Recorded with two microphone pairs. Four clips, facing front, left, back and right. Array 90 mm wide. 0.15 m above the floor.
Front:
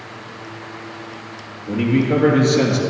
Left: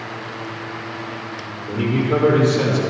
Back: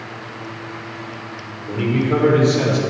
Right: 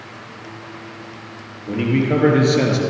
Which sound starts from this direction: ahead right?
A man speaking, at 1.7 s.